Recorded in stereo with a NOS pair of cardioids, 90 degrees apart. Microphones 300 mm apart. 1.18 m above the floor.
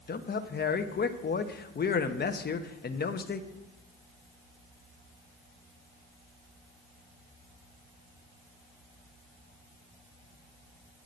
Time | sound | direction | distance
0.1 | a man speaking | 35° left | 1.0 m